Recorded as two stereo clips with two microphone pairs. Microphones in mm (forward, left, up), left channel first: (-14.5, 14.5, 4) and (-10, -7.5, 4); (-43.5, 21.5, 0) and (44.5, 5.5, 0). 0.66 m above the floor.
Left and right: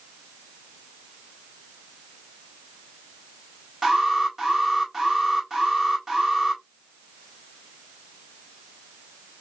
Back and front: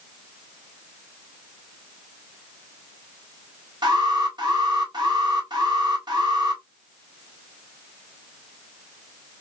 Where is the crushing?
No crushing in this recording.